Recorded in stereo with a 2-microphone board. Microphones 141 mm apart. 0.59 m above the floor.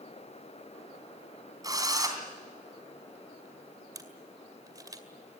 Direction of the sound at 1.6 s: 25° right (ahead or behind).